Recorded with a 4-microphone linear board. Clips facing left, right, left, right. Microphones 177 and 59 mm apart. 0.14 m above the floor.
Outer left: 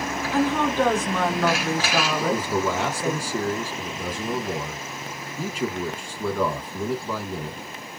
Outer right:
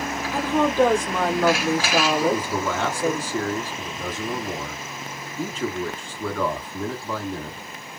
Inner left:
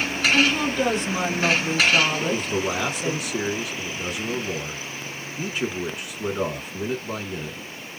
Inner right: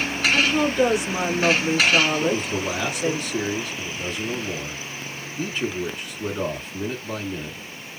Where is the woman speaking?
10° right (ahead or behind), 1.1 m.